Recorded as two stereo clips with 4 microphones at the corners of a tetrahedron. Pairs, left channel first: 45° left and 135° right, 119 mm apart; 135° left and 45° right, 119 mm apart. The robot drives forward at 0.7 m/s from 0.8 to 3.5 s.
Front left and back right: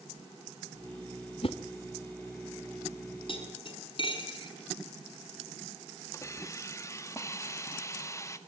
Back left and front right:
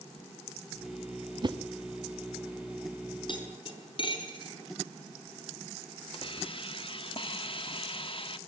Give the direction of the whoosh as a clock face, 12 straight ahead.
12 o'clock.